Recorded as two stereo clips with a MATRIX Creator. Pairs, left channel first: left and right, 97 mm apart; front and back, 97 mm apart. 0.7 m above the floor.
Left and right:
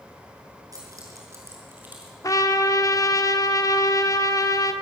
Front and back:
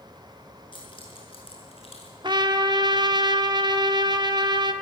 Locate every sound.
0.7 s keys jangling: 35° right, 6 m; by 2.1 s 15° right, 5.5 m
2.2 s a trumpet: 140° left, 1.2 m